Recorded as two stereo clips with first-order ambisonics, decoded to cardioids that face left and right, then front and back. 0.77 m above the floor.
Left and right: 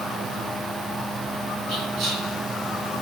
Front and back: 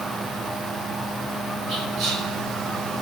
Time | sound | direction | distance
1.7 | whispering | 135° right | 1.8 m